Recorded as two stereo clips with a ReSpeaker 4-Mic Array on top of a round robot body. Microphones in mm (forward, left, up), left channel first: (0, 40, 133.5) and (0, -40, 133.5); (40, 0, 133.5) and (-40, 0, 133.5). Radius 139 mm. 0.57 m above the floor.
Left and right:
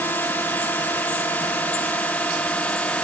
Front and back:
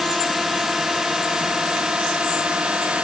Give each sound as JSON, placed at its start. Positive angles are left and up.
{"t": 0.0, "sound": "a drone", "azimuth_deg": 100}